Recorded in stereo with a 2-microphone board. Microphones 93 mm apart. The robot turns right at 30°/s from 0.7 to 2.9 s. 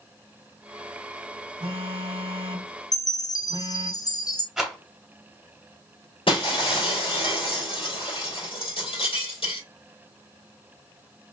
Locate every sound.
1.6 s a phone buzzing: 95° right, 0.8 m; by 3.9 s 60° right, 0.8 m
2.9 s a chime: 40° left (ahead or behind), 0.5 m
4.6 s a rattle: centre (ahead or behind), 2.5 m
6.3 s breaking glass: 70° left (ahead or behind), 2.5 m